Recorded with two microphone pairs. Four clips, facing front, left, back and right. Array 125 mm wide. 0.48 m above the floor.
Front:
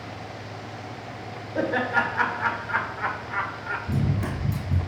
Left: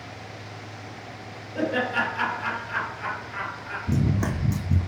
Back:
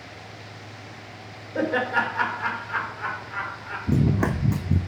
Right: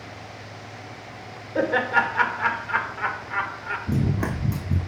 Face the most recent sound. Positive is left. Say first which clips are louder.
# left 1 dB, back 8 dB
turn(degrees=-170)